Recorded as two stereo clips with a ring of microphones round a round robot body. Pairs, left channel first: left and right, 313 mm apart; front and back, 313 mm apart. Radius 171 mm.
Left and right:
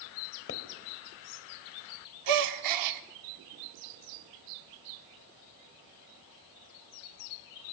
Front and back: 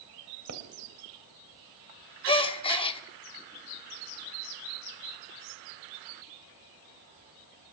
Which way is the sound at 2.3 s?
75° right.